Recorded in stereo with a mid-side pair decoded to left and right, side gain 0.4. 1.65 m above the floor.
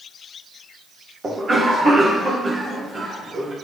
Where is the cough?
40° right, 0.9 m.